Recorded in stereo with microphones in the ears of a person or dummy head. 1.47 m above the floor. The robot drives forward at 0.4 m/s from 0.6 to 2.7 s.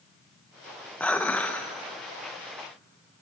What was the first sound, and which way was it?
Dishes clattering, 5° left (ahead or behind).